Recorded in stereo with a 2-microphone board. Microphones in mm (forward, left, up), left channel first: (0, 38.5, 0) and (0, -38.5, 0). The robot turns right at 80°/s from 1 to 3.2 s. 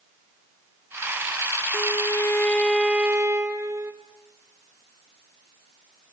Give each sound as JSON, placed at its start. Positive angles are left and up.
{"t": 1.7, "sound": "a violin", "azimuth_deg": 100, "distance_m": 3.0}